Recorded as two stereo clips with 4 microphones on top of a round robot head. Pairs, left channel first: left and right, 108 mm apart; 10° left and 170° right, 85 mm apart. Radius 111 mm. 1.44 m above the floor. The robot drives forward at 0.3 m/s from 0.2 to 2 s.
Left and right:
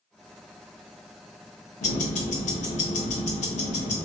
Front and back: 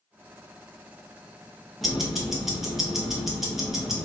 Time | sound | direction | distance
1.8 | ticking | 95° left | 0.7 m